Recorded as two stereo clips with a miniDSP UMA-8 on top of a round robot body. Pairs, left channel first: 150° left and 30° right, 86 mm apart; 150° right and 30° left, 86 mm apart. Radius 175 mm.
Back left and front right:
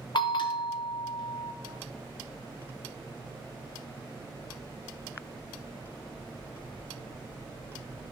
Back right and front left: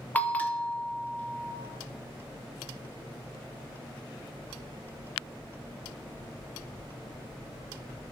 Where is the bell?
140° left, 1.2 m.